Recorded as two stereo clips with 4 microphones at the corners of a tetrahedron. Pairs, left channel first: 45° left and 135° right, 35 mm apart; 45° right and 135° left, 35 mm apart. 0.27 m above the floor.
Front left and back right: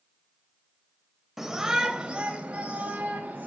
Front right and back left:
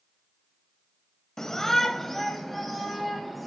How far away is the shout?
About 1.1 m.